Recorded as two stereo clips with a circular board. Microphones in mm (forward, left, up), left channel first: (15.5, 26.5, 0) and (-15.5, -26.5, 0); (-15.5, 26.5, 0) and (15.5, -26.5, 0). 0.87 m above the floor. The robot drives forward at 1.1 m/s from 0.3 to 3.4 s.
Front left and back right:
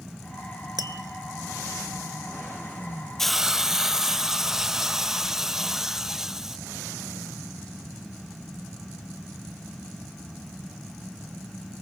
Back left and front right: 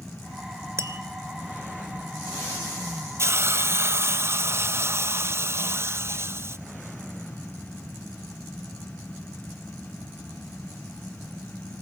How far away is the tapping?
About 1.8 m.